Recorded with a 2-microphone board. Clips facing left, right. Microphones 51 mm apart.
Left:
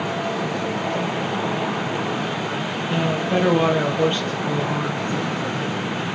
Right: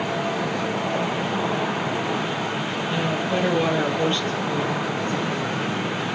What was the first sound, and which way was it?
A woman speaking, 20° left (ahead or behind).